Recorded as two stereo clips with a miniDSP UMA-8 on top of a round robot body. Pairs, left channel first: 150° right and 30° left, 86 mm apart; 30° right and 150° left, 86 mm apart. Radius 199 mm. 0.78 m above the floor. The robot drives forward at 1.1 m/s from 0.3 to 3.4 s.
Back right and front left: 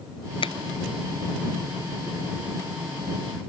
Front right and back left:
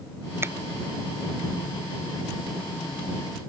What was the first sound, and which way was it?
A finger snap, 145° right.